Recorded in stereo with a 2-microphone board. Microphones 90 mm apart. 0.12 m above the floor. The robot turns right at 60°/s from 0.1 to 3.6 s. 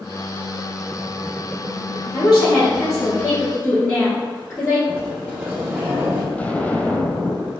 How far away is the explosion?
About 0.6 m.